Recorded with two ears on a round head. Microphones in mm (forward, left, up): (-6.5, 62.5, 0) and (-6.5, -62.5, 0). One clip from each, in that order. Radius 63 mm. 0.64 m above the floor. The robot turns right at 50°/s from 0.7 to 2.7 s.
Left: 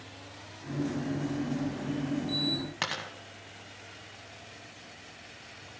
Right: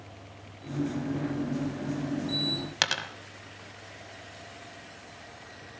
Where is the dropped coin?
75° right (ahead or behind), 1.1 m.